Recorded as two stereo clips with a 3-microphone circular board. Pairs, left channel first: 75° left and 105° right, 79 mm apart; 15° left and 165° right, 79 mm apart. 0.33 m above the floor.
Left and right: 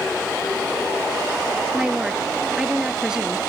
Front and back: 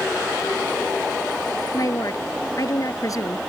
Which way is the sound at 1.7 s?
25° right.